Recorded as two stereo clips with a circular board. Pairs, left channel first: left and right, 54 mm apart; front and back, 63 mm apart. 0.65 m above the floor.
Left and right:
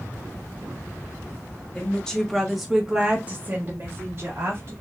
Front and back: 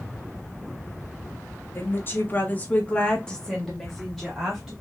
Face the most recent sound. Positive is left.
turn(degrees=-100)